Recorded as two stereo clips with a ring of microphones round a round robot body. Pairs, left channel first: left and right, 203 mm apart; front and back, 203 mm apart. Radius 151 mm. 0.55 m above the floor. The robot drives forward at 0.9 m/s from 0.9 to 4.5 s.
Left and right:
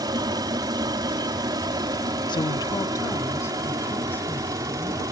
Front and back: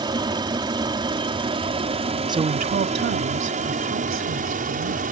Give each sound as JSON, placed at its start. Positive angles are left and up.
{"t": 0.0, "sound": "an aircraft", "azimuth_deg": -140}
{"t": 2.3, "sound": "a woman speaking", "azimuth_deg": 130}